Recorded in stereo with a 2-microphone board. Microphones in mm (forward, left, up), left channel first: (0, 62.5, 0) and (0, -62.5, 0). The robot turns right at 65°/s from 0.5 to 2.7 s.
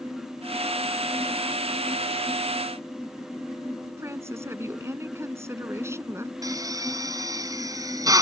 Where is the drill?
30° right (ahead or behind).